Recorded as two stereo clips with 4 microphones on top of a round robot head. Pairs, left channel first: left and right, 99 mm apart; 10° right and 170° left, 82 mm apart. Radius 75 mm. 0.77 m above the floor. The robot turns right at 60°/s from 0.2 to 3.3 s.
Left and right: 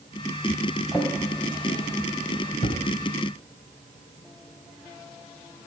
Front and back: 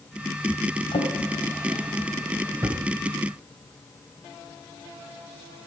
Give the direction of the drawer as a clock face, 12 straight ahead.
12 o'clock.